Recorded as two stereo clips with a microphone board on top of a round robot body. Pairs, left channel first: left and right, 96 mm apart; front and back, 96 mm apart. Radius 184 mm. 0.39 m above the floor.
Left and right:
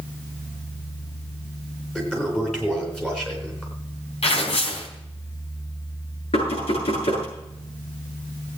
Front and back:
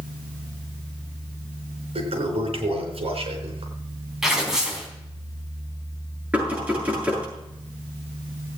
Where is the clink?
No clink in this recording.